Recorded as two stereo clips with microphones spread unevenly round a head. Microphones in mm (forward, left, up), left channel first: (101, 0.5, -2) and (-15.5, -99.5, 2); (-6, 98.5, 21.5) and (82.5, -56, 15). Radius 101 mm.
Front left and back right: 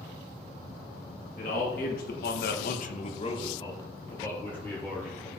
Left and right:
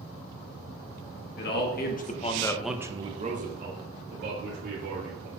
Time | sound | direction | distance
1.4 | a man speaking | 100° left | 1.7 m